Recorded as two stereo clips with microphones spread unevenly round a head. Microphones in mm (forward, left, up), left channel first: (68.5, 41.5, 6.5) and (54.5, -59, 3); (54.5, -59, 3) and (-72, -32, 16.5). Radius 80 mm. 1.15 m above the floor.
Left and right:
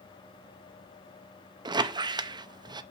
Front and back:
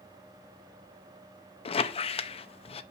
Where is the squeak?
55° right, 0.6 m.